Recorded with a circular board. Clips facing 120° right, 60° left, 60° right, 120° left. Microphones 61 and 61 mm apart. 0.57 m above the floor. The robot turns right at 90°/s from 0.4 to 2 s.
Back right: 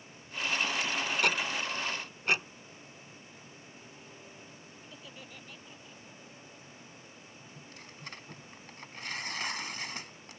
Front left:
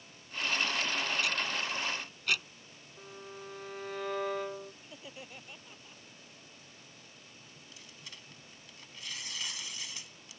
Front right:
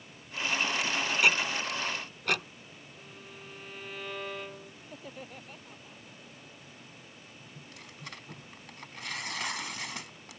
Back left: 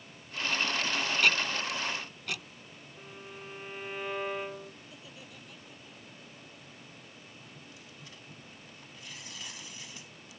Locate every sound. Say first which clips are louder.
1.2 s ticking: back right 3 dB, front right 2 dB; 135° right; by 2.5 s 65° right
3.0 s a violin: front left 6 dB, back left 4 dB; 50° left
4.8 s laughter: front left 1 dB, front right 5 dB; 10° right
7.5 s tearing paper: back right 4 dB, front right 2 dB; 75° right